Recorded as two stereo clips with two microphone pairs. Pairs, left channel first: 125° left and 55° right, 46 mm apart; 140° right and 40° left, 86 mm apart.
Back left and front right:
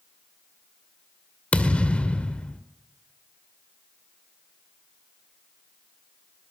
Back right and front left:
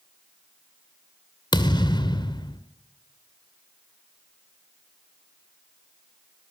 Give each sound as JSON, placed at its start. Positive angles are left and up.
{"t": 1.5, "sound": "a thud", "azimuth_deg": -165, "distance_m": 1.7}